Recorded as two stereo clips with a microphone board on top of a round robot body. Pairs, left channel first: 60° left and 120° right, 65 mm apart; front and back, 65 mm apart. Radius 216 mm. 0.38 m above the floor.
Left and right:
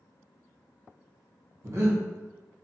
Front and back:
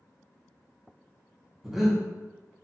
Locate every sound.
1.6 s breathing: 95° right, 1.2 m